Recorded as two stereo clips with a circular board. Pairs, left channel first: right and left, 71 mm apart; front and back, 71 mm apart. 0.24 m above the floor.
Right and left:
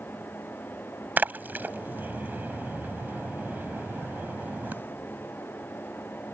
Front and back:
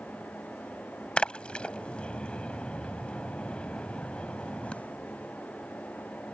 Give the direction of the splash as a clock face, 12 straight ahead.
10 o'clock.